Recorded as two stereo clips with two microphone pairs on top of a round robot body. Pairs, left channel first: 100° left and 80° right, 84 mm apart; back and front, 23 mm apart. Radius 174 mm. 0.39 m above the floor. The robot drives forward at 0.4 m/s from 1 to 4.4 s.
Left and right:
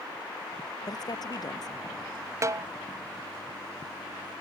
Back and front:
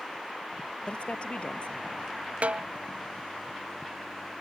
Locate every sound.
0.8 s a woman speaking: 140° left
2.4 s a snare drum: 25° right